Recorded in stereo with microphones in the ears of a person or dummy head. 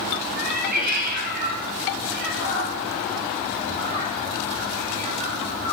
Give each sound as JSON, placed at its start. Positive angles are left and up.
{"t": 0.3, "sound": "a cat meowing", "side_deg": -45, "distance_m": 3.0}